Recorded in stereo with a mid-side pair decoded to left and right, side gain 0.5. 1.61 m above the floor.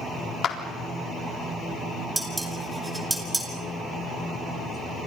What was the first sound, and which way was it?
A clap, 55° left.